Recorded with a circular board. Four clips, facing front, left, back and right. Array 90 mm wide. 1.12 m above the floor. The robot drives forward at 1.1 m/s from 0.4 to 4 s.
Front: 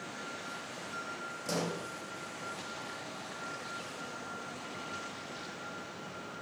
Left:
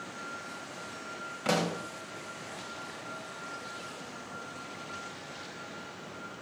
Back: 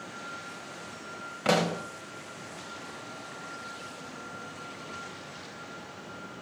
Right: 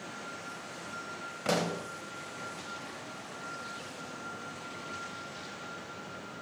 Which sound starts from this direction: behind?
A pop, at 1.4 s.